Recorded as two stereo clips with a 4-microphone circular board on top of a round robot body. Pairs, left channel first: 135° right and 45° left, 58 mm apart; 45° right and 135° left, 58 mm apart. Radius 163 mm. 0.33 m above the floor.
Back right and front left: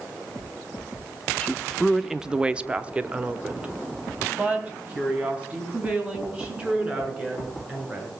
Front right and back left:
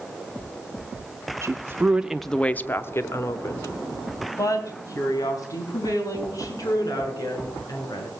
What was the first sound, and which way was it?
A woman speaking, 150° left.